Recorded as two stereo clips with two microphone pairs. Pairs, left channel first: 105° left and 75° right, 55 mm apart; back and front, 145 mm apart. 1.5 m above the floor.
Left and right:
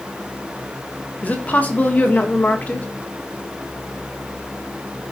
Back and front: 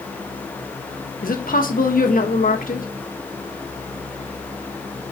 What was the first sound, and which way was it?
A woman speaking, 165° left.